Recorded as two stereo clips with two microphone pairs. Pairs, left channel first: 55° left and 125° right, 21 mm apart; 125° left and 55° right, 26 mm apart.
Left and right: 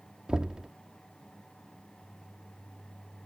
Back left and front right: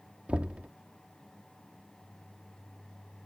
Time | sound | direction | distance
0.3 | knocking | 85° right | ?